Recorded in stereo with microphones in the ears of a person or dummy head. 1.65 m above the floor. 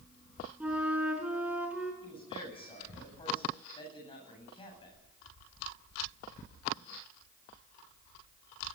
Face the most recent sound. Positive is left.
turn(degrees=25)  # may be behind; listen again after turning